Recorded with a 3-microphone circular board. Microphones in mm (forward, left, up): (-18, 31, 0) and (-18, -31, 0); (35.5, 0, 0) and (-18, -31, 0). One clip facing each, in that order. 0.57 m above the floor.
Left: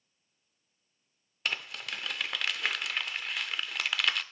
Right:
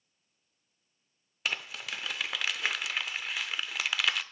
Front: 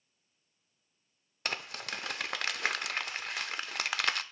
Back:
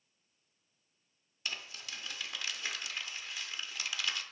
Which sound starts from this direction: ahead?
Crumpling, at 1.4 s.